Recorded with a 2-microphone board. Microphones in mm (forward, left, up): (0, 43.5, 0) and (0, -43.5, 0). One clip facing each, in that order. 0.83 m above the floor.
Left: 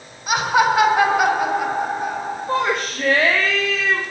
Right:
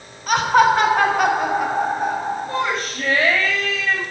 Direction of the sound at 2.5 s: 60° left (ahead or behind).